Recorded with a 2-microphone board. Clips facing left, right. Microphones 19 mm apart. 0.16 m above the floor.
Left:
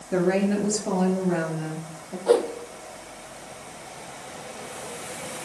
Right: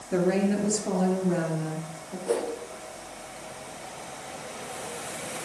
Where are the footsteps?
No footsteps in this recording.